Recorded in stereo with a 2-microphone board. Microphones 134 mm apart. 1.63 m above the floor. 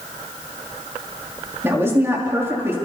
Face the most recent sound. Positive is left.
turn(degrees=-20)  # may be behind; listen again after turning